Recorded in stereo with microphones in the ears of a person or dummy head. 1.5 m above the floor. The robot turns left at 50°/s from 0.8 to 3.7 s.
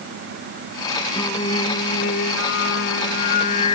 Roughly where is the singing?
Behind.